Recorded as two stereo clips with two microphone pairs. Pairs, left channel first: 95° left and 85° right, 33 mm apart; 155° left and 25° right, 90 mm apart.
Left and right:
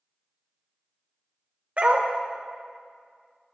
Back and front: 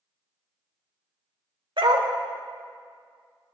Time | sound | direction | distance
1.8 | a dog barking | 40° right | 1.3 m